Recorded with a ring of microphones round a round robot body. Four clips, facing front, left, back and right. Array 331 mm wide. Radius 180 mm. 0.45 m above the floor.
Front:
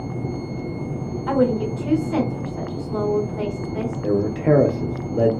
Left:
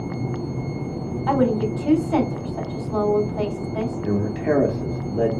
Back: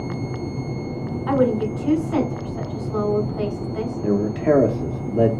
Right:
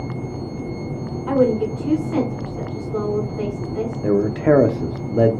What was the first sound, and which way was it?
A woman speaking, 70° left.